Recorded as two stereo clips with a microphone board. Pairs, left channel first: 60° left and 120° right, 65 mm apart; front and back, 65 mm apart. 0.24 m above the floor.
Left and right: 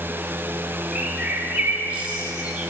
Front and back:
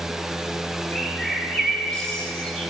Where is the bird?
75° right, 1.5 m.